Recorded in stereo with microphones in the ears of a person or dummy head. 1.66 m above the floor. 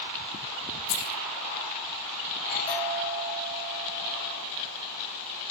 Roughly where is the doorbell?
Left.